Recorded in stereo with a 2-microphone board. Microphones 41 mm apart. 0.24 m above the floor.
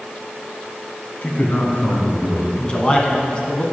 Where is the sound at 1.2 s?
45° left (ahead or behind), 1.9 m; by 2.5 s 50° left (ahead or behind), 3.5 m.